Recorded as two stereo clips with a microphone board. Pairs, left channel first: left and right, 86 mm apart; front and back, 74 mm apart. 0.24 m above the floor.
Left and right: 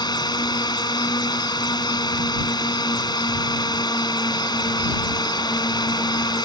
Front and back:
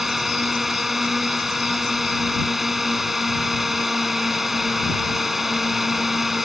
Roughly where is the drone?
Left.